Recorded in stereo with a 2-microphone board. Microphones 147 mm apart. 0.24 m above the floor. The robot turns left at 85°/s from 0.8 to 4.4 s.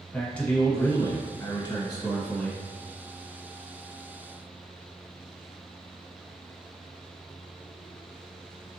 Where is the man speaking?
10° left (ahead or behind), 1.0 m; by 2.6 s 5° left (ahead or behind), 1.0 m.